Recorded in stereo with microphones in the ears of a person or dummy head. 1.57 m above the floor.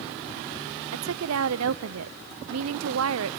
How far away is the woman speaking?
About 0.7 m.